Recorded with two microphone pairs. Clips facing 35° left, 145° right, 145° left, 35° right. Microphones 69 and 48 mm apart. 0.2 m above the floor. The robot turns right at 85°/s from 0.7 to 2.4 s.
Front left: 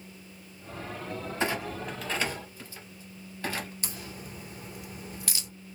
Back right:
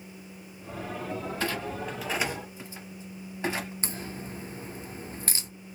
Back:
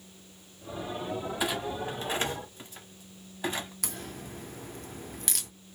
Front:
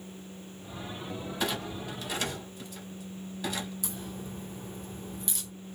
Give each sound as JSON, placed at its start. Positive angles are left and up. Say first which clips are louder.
{"t": 1.4, "sound": "a clunk", "louder": "front left 4 dB, even", "azimuth_deg": 80, "distance_m": 0.8}
{"t": 3.8, "sound": "a crack", "louder": "back right 4 dB, front 1 dB", "azimuth_deg": 160, "distance_m": 0.6}